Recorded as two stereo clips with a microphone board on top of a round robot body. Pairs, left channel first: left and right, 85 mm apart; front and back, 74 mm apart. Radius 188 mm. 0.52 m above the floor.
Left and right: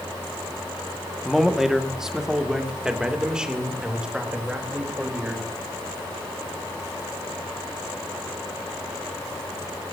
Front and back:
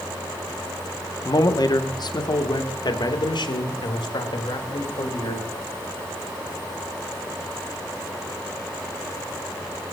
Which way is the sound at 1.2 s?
5° right.